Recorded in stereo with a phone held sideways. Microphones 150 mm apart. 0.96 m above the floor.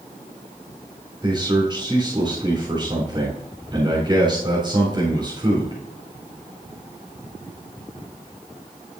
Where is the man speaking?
30° right (ahead or behind), 3.5 m.